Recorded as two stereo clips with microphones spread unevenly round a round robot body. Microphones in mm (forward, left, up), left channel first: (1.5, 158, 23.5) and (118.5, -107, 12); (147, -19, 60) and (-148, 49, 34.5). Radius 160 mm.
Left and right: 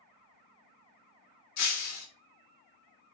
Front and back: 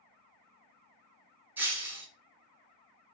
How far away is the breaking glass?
About 1.2 m.